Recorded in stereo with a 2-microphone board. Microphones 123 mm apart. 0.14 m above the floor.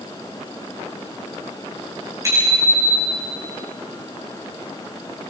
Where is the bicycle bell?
25° right (ahead or behind), 8.5 m; by 3.3 s 30° right (ahead or behind), 9 m.